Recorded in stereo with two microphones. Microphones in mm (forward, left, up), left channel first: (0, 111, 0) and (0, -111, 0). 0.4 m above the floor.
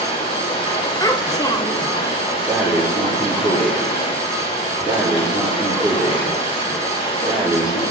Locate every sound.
0.0 s running water: 25° left (ahead or behind), 2 m
1.0 s a child speaking: 15° left (ahead or behind), 0.6 m
2.5 s breathing: 5° right (ahead or behind), 5 m